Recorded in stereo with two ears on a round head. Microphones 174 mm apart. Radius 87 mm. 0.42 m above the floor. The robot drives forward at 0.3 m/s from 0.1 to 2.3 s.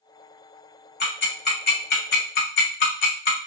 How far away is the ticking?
About 1.7 m.